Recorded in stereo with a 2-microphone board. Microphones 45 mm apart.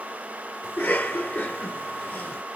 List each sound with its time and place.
0.6 s a cough: 45° left (ahead or behind), 3 m